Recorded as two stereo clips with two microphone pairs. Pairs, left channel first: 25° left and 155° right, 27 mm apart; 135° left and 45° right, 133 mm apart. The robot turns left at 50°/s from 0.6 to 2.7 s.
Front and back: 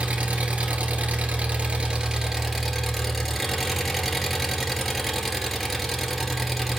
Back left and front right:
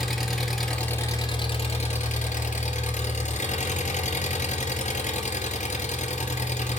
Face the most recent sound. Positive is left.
turn(degrees=120)